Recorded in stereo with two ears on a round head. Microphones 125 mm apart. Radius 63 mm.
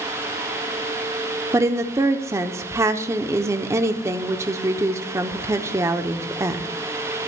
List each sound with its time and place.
1.5 s a woman speaking: 20° right (ahead or behind), 0.8 m